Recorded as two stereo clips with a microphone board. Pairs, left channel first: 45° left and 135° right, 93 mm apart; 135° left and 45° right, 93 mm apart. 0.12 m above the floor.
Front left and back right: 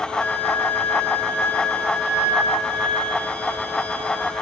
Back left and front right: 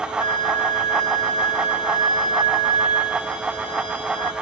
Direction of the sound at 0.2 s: 110° left.